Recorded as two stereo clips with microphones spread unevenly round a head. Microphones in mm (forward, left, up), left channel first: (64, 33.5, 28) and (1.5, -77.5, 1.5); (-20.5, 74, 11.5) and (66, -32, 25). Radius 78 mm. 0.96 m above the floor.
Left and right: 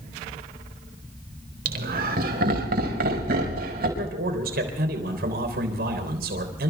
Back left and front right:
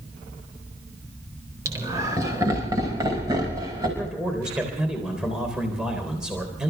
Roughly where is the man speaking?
Behind right.